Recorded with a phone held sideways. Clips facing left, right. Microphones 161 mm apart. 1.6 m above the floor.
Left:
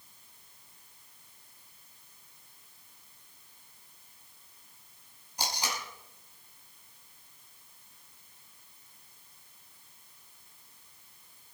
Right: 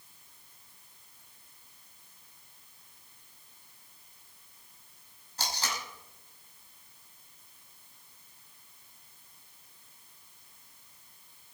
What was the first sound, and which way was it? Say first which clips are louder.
Tape being pulled: left 1 dB; 15° left (ahead or behind).